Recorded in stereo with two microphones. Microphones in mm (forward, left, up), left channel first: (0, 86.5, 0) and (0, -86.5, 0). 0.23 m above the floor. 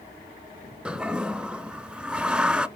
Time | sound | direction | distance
0.8 | a toilet flushing | 5° right (ahead or behind) | 0.5 m